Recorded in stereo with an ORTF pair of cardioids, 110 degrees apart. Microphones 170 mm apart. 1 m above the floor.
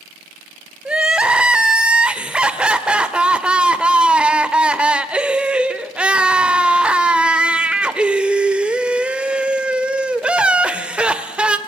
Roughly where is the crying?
Ahead.